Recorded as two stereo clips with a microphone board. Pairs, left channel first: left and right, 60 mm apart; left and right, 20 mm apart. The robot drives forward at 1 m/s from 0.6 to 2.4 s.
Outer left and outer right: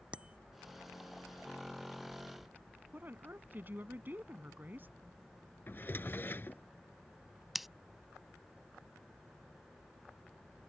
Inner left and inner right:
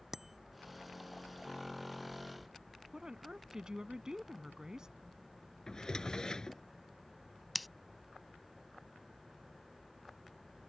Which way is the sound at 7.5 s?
Centre (ahead or behind).